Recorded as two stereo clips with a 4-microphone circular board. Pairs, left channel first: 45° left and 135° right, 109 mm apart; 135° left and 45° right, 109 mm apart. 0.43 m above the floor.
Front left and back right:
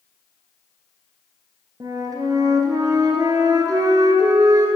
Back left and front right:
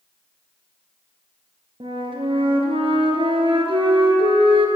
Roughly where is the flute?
Right.